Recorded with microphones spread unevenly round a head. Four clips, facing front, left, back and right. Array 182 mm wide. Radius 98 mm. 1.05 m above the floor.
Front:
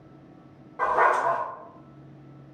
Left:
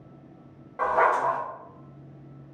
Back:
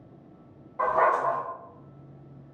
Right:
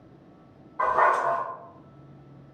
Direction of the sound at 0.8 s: 130° left.